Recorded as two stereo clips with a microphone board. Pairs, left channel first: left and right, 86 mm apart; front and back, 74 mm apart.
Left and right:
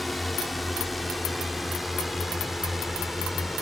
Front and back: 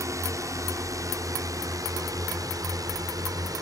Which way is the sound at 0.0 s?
Straight behind.